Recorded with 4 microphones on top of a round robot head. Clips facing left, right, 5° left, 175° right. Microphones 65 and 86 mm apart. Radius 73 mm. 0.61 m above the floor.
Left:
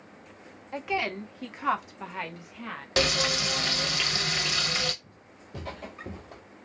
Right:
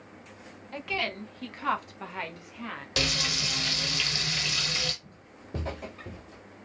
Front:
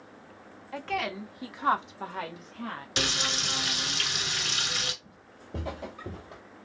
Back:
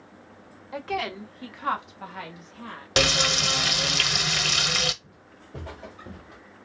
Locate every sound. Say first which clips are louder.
0.7 s a woman speaking: left 3 dB, back 2 dB; 130° left, 1.0 m; by 2.9 s 5° right, 1.6 m
3.0 s frying: left 5 dB, back 9 dB; 155° left, 0.7 m
5.0 s footsteps: right 2 dB, back 1 dB; 60° right, 1.6 m; by 6.4 s 70° left, 1.0 m